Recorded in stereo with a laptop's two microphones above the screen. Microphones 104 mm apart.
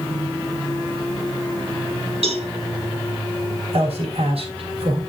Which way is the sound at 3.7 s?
70° right (ahead or behind).